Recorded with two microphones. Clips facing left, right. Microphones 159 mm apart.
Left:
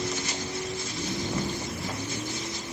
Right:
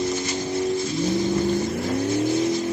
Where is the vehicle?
25° right (ahead or behind); by 2.7 s 75° right (ahead or behind).